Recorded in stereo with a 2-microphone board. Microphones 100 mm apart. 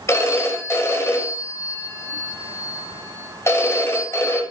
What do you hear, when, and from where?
0.1 s a phone ringing: 30° left (ahead or behind), 1.4 m